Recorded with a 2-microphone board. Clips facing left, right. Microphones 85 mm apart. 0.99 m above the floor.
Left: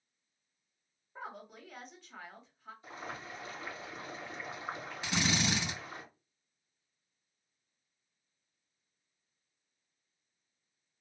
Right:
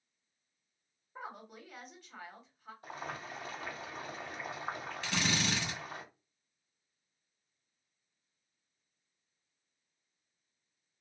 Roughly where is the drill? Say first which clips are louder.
Left 2 dB; centre.